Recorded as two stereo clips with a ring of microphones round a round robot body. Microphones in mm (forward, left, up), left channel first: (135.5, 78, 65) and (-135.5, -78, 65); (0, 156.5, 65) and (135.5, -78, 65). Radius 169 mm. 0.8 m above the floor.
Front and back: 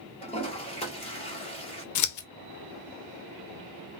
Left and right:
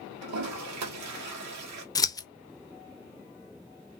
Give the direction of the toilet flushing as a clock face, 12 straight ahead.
1 o'clock.